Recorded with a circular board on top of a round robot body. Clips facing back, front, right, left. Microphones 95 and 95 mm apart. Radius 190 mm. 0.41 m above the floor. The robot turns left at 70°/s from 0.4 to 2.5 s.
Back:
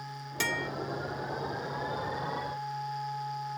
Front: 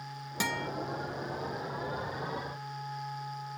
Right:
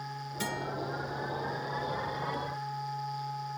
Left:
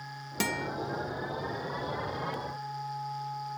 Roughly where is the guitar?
Left.